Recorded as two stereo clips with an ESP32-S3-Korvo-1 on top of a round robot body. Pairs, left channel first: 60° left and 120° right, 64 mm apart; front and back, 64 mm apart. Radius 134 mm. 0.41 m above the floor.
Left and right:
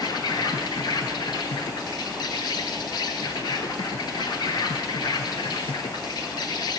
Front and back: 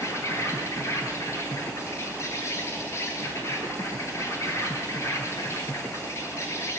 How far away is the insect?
About 1.0 m.